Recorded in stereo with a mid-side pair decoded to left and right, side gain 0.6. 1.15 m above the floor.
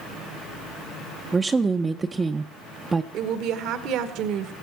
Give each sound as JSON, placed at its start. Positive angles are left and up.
{"t": 1.3, "sound": "a woman speaking", "azimuth_deg": -20, "distance_m": 0.6}
{"t": 3.1, "sound": "a woman speaking", "azimuth_deg": -65, "distance_m": 1.2}